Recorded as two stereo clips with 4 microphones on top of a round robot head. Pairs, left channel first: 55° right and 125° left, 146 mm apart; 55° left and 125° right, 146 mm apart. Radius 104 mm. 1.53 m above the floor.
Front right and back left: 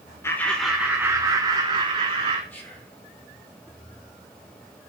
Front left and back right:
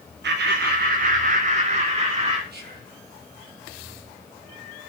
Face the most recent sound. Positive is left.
turn(degrees=-130)